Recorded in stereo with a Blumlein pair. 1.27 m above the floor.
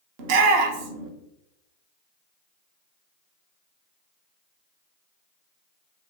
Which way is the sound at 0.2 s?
50° right.